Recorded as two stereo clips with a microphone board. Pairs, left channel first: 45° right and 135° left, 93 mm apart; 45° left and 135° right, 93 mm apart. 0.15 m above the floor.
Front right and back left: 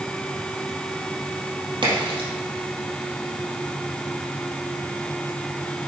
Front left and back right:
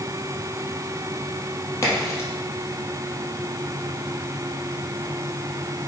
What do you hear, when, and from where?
1.8 s a crack: 105° left, 3.5 m